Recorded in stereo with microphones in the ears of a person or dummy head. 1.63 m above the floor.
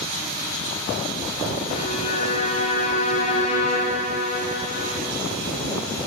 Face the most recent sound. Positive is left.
turn(degrees=40)  # may be behind; listen again after turning